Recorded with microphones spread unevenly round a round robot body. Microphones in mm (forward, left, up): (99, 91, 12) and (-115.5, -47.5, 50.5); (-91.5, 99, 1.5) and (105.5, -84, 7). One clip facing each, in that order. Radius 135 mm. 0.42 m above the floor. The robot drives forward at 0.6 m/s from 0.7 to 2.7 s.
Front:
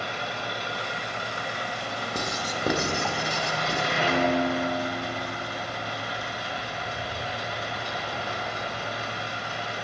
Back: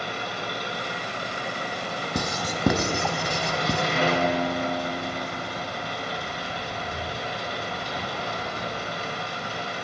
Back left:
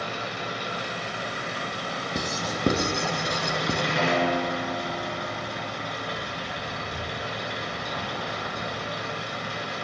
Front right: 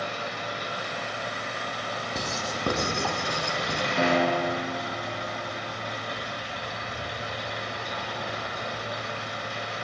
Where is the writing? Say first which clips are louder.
Back 4 dB, back left 4 dB; 145° right, 1.2 m; by 3.8 s 155° right, 1.5 m.